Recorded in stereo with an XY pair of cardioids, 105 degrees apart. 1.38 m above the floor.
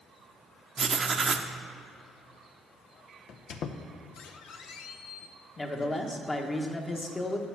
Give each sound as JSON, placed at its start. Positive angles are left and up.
{"t": 0.8, "sound": "writing", "azimuth_deg": -35, "distance_m": 0.7}
{"t": 3.3, "sound": "a squeak", "azimuth_deg": 70, "distance_m": 0.6}
{"t": 5.6, "sound": "a man speaking", "azimuth_deg": 25, "distance_m": 1.2}